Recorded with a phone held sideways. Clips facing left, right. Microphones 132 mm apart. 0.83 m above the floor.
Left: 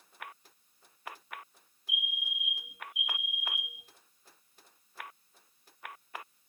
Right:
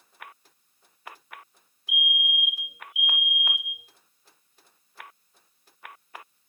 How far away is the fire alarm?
About 2.5 m.